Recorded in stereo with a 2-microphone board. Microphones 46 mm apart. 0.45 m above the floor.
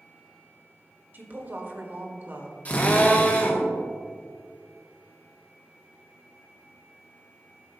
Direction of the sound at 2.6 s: 35° left (ahead or behind).